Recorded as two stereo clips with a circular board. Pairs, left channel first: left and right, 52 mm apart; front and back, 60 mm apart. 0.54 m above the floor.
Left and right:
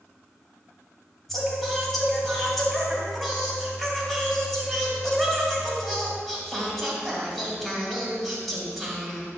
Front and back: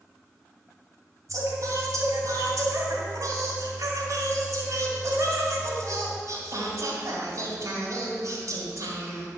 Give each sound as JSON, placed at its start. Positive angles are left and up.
{"t": 1.3, "sound": "singing", "azimuth_deg": 180, "distance_m": 2.0}